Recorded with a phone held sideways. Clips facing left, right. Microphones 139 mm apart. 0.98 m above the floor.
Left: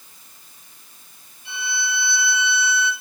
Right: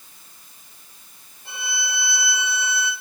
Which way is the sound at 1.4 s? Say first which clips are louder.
Left 3 dB; 50° right (ahead or behind).